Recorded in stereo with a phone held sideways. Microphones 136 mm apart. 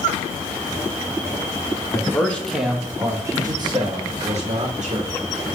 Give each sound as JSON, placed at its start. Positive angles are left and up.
{"t": 1.9, "sound": "a man speaking", "side_deg": 20, "distance_m": 1.0}